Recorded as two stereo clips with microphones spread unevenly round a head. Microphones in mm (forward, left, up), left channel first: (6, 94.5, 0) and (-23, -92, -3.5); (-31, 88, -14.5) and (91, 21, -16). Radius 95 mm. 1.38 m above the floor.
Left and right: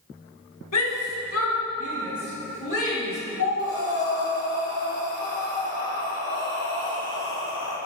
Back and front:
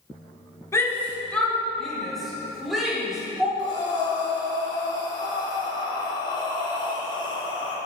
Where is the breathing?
95° left, 2.5 m.